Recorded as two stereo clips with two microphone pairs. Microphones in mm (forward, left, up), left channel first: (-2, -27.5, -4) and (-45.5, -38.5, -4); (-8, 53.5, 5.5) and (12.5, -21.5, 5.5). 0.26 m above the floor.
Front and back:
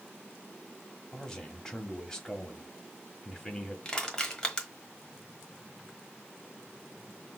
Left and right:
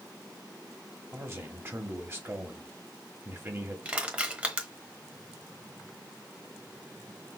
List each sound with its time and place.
1.1 s a man speaking: 50° right, 1.2 m
3.9 s crushing: 30° right, 1.2 m